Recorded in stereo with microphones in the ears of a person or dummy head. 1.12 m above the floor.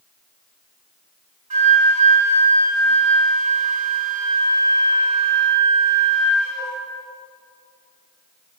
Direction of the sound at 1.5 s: 40° right (ahead or behind).